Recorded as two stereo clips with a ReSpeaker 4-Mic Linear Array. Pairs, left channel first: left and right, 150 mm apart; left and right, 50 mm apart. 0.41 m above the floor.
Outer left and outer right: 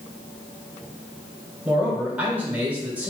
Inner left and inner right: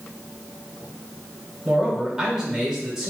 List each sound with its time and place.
1.6 s a man speaking: 10° right (ahead or behind), 1.3 m